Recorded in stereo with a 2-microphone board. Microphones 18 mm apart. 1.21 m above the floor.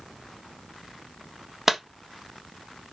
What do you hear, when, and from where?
1.7 s a clap: 15° right (ahead or behind), 1.4 m